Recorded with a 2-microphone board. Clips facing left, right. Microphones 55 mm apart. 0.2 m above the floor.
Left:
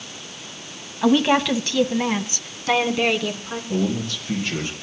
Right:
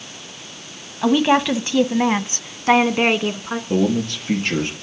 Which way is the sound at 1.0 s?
5° right (ahead or behind).